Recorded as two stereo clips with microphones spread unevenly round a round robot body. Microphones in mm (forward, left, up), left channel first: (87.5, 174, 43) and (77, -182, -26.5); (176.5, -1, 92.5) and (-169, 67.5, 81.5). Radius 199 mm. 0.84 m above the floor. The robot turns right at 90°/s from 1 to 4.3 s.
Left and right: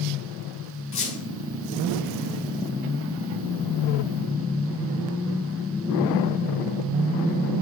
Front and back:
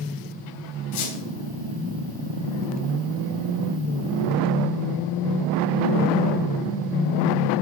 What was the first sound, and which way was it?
A squeak, 30° left.